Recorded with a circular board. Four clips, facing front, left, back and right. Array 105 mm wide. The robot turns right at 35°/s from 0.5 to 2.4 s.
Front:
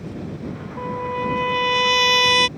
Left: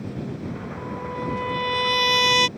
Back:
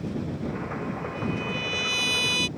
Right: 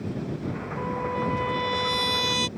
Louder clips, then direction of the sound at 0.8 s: Right 4 dB, front 6 dB; 25° right.